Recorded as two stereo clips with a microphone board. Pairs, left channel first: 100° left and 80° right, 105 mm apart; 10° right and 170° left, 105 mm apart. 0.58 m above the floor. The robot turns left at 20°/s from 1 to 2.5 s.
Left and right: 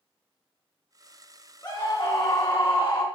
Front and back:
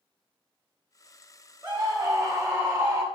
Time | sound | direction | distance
1.6 | a scream | 130° left | 0.7 m